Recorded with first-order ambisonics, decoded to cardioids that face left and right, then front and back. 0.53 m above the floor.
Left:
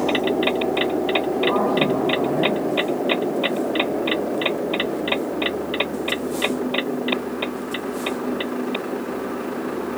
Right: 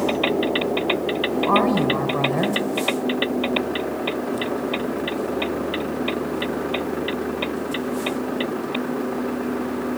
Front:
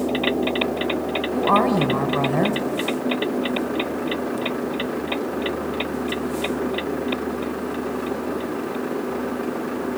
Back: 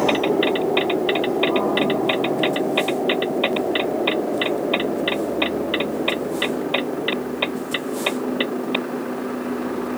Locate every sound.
1.3 s a woman speaking: 30° right, 2.5 m